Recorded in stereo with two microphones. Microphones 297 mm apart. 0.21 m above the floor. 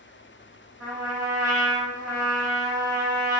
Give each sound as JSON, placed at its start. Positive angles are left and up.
{"t": 0.8, "sound": "a trumpet", "side_deg": -60, "distance_m": 1.9}